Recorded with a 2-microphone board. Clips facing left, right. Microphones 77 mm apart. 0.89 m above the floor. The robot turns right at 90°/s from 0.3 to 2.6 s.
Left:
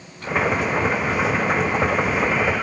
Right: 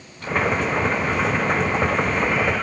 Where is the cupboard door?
I don't hear a cupboard door.